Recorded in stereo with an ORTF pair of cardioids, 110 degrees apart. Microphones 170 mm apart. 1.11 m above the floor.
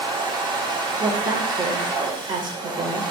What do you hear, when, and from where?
0.0 s a machine running: 25° right, 0.9 m
1.0 s a woman speaking: 30° right, 1.3 m